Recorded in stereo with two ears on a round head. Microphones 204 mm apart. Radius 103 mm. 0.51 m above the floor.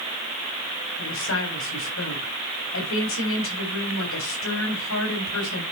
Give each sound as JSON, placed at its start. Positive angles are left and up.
{"t": 1.0, "sound": "a woman speaking", "side_deg": 65, "distance_m": 4.0}